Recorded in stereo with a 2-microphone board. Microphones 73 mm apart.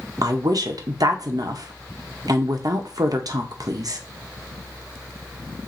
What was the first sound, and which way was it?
A woman speaking, 60° right (ahead or behind).